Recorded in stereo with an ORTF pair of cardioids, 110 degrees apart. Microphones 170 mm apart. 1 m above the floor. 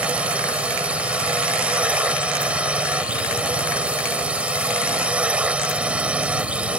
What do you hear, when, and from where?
0.0 s a drone: 10° right